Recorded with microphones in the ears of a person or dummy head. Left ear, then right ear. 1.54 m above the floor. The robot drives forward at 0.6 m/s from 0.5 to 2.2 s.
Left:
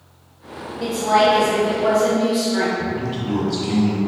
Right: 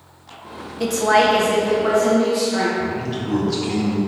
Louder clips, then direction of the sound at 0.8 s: Right 1 dB; 70° right (ahead or behind).